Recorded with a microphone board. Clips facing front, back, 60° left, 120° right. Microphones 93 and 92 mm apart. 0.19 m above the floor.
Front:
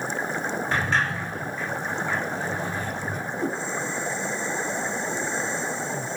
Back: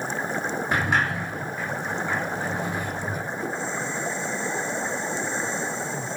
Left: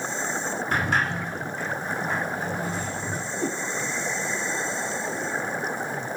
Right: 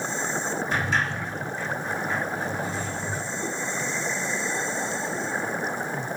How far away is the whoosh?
About 2.5 m.